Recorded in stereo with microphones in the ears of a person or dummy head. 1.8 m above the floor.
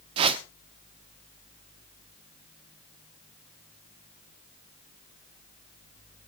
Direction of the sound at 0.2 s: 35° right (ahead or behind).